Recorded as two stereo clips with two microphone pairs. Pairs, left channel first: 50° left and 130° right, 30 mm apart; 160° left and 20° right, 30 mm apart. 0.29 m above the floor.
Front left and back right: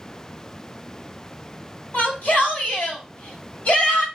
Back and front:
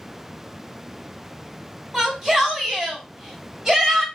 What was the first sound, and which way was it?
A shout, 45° left.